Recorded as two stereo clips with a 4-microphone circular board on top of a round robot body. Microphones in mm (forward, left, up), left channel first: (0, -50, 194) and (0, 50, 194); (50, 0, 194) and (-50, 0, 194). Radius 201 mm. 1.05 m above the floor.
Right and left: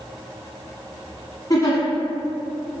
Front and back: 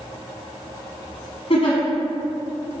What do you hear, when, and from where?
1.5 s a giggle: 35° right, 0.9 m